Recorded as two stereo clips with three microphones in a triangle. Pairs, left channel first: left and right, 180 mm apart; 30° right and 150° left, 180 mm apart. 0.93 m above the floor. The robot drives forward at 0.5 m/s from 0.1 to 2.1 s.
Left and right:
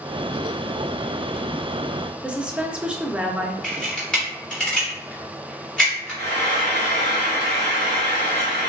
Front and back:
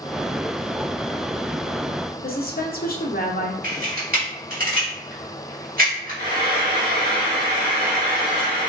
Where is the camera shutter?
175° left, 1.5 m.